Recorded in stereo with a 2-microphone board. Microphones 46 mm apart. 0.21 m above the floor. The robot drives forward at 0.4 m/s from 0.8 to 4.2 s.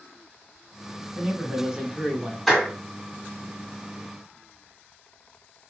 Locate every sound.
1.1 s a man speaking: 15° right (ahead or behind), 1.0 m
2.5 s a clap: centre (ahead or behind), 1.2 m